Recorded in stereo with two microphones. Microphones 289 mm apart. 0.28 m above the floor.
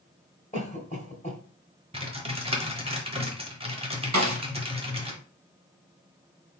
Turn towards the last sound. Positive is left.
turn(degrees=-70)  # may be behind; listen again after turning